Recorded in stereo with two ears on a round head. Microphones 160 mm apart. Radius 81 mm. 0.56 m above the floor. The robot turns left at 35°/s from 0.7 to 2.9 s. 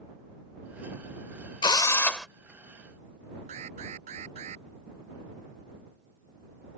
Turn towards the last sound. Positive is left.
turn(degrees=-40)  # may be behind; listen again after turning